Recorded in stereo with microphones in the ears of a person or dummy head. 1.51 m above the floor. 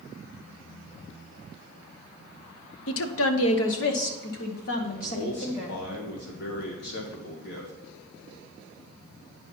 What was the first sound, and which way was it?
A woman speaking, 70° left (ahead or behind).